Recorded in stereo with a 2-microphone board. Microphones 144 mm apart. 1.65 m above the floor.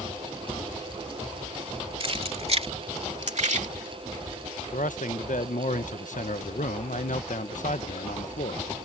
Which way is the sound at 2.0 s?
40° right (ahead or behind).